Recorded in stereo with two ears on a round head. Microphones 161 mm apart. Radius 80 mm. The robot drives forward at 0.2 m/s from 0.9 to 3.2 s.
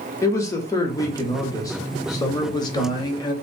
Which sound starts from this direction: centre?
A man speaking, at 0.2 s.